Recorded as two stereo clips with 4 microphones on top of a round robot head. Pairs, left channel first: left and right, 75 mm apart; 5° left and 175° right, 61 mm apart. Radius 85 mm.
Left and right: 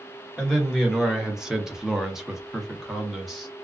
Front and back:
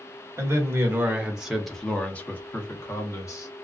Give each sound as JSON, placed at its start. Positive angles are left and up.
{"t": 0.4, "sound": "a man speaking", "azimuth_deg": -170, "distance_m": 1.0}